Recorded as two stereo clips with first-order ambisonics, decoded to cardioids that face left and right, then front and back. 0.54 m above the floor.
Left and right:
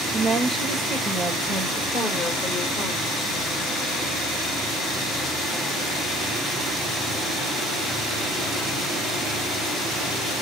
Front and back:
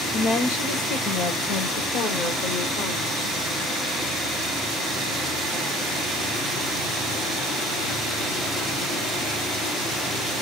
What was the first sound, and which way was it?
A woman speaking, 20° right.